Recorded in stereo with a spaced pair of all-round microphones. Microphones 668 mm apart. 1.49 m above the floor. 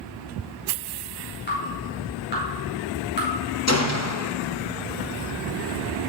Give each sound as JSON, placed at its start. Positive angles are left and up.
{"t": 1.5, "sound": "dripping", "side_deg": 15, "distance_m": 4.5}
{"t": 3.7, "sound": "a gunshot", "side_deg": 25, "distance_m": 0.9}